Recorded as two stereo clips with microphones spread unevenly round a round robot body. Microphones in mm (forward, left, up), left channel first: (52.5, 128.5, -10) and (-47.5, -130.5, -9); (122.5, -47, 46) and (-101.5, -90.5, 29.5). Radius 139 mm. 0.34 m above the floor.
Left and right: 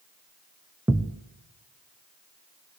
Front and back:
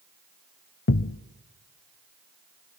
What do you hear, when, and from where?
0.9 s a thud: 30° right, 0.6 m